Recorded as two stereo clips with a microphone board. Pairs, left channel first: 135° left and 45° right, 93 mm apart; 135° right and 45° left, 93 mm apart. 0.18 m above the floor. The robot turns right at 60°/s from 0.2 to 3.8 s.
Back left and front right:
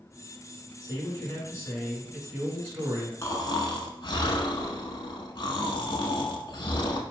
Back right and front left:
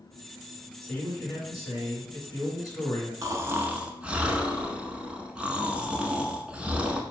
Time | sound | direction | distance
0.8 | a man speaking | 150° left | 2 m
3.2 | snoring | 85° left | 0.6 m